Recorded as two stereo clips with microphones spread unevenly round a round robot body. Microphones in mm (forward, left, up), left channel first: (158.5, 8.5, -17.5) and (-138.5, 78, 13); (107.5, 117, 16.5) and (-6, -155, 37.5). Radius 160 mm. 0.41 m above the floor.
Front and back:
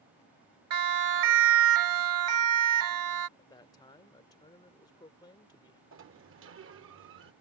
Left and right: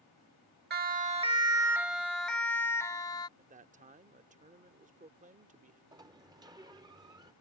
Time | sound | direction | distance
0.7 | a siren | 165° right | ?
3.4 | a man speaking | 65° right | ?
5.9 | a sliding door | 175° left | ?